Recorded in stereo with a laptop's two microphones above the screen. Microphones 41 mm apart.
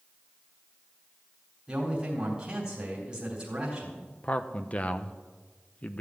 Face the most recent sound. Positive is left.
turn(degrees=35)  # may be behind; listen again after turning